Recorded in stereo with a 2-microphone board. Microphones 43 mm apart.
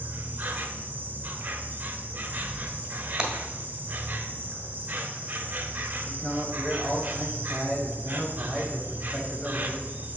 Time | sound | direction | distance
0.0 | an insect | 40° right (ahead or behind) | 0.8 m
3.2 | breaking glass | 10° right (ahead or behind) | 1.5 m
6.0 | a man speaking | 35° left (ahead or behind) | 1.3 m